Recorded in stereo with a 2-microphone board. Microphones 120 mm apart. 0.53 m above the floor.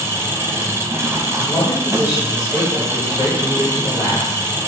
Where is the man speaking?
30° left (ahead or behind), 3 m.